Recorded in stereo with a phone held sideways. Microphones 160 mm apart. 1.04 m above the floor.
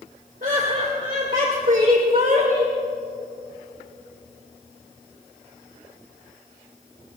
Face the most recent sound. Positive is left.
turn(degrees=-60)  # may be behind; listen again after turning